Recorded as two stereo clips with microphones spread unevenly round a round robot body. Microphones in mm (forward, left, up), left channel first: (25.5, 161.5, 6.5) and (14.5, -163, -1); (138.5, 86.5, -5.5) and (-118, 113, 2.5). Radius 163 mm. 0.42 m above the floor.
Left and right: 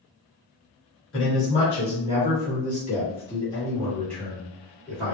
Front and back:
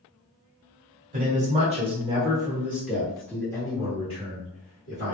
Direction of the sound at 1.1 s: 125° left.